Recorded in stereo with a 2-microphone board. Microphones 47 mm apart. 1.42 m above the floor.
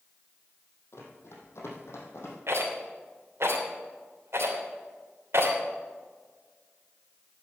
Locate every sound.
0.9 s running footsteps: 65° left (ahead or behind), 3.5 m
2.5 s a rattle: 75° right (ahead or behind), 3 m